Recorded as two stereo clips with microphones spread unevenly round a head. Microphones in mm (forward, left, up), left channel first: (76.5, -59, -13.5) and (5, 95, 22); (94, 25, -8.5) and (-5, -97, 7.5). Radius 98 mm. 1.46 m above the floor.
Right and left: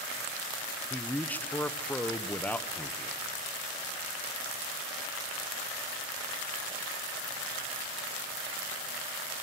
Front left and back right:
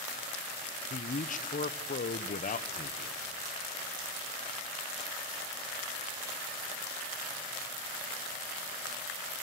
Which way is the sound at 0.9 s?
15° left.